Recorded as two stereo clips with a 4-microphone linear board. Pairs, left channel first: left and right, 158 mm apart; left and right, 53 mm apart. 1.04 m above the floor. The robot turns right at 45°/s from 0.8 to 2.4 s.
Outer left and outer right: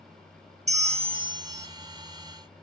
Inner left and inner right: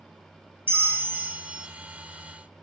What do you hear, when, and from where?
0.7 s a bell: 60° right, 0.9 m; by 1.7 s 20° right, 0.9 m